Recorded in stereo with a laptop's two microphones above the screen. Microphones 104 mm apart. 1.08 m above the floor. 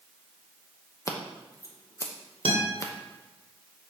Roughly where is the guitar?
Right.